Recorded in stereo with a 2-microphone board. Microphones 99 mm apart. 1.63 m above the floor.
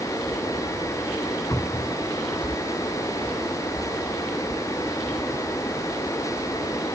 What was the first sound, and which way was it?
A cupboard door, 30° left (ahead or behind).